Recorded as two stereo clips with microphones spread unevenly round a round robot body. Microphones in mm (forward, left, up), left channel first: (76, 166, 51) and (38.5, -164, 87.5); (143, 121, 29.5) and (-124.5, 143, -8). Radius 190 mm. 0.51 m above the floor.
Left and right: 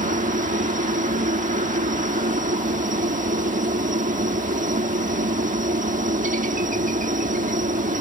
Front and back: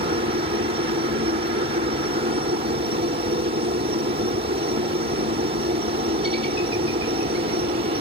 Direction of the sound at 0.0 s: 155° right.